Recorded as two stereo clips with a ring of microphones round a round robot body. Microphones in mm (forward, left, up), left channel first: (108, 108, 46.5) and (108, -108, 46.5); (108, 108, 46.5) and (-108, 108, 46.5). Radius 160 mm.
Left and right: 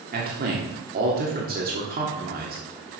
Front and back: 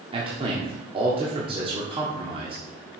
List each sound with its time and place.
0.1 s a man speaking: 120° right, 1.7 m